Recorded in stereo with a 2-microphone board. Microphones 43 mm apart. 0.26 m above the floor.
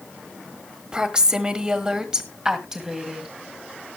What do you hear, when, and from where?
0.9 s a woman speaking: 20° right (ahead or behind), 1.3 m; by 3.3 s 15° right (ahead or behind), 1.8 m